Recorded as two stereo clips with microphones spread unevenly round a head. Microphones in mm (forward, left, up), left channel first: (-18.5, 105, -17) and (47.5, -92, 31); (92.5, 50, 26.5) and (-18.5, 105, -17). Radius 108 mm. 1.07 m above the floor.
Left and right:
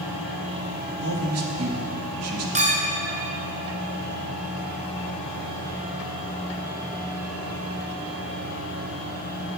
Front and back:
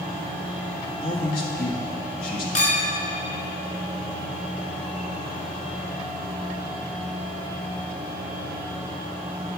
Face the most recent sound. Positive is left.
turn(degrees=-15)